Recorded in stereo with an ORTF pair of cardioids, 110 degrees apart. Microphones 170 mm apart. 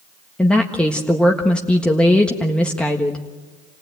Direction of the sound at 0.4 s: 5° left.